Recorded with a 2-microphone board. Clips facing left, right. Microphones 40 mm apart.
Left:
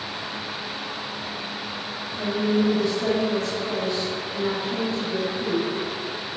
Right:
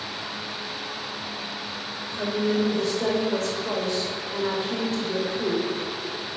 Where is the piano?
No piano in this recording.